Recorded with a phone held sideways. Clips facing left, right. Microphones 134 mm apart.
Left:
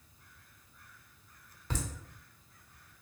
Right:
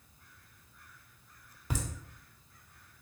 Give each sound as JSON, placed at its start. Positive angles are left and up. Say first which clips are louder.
{"t": 1.7, "sound": "laughter", "louder": "right 1 dB", "side_deg": -10, "distance_m": 1.1}